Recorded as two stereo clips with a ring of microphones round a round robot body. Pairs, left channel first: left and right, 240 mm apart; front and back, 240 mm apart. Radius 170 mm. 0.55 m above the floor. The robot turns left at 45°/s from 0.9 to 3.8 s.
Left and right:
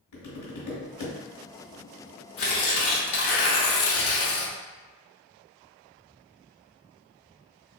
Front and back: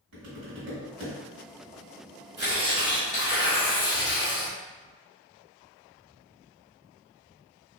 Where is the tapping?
130° left, 0.8 m; by 1.1 s 115° left, 0.8 m.